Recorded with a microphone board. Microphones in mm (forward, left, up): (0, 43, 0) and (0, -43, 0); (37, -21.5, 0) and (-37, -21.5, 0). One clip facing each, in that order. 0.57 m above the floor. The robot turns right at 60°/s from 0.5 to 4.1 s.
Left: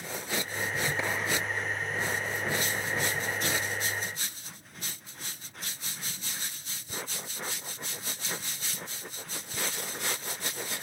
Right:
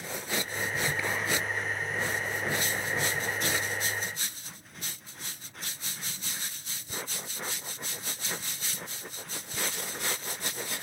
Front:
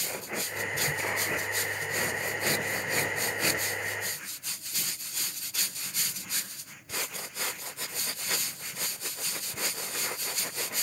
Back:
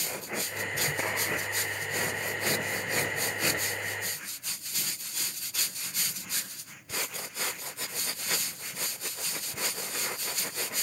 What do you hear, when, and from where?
1.0 s a clap: 155° left, 7.5 m; by 1.1 s 160° left, 7.5 m